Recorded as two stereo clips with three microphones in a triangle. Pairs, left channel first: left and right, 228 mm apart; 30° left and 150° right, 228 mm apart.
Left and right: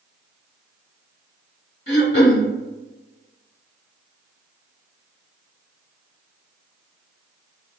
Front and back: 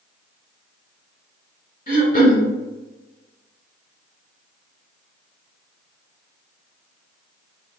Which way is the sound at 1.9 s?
65° left.